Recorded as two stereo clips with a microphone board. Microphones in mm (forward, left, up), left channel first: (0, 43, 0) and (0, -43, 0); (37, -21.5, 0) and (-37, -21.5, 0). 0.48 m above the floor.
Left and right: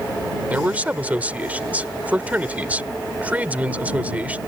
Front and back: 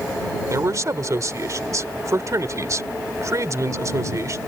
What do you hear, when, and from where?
0.5 s a man speaking: 155° right